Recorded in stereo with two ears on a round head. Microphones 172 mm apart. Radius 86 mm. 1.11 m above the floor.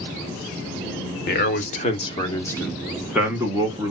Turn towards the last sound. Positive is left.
turn(degrees=-25)  # may be behind; listen again after turning